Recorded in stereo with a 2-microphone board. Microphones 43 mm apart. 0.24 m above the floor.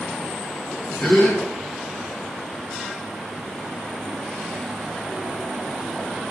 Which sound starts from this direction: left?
A gasp, at 1.0 s.